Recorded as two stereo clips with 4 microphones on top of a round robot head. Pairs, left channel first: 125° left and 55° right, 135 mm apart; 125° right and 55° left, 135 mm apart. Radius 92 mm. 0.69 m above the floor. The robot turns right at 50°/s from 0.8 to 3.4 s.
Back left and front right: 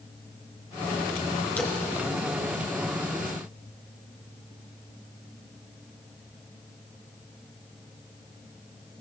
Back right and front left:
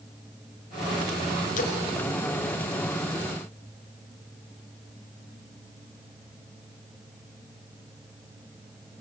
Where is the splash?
155° right, 3.5 m; by 1.8 s 145° right, 3.5 m.